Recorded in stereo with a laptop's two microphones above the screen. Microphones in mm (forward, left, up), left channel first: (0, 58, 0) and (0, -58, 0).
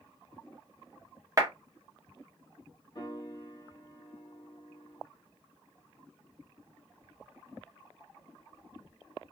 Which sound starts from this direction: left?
A piano, at 3.0 s.